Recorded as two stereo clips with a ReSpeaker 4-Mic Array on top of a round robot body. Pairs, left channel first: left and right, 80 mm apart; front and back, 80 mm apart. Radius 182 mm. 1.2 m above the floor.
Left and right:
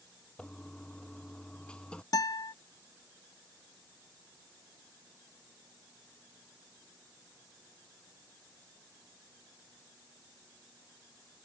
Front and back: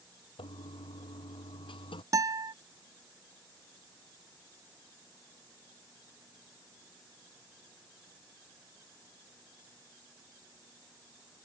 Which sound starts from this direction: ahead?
A toilet flushing, at 0.4 s.